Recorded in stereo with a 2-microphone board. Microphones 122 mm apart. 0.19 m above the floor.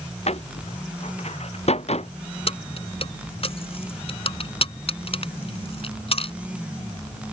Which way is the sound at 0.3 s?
60° left (ahead or behind).